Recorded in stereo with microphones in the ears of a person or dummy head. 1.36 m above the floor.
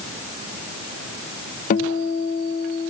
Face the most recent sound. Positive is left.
turn(degrees=45)  # may be behind; listen again after turning